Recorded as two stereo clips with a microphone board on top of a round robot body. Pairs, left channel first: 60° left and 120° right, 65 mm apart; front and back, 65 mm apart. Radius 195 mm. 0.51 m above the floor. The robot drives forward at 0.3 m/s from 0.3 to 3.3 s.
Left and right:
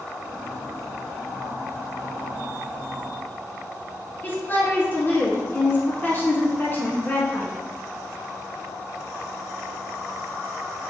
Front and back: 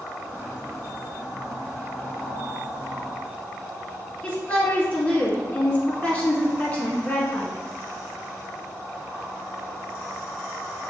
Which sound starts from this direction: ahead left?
A woman speaking, at 4.2 s.